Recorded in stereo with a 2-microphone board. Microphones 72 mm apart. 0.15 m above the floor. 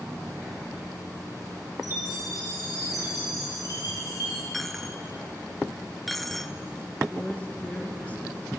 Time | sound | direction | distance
1.8 | a chime | 55° left (ahead or behind) | 8.5 m
4.5 | a dropped coin | centre (ahead or behind) | 0.5 m
7.1 | a woman speaking | 20° left (ahead or behind) | 2.5 m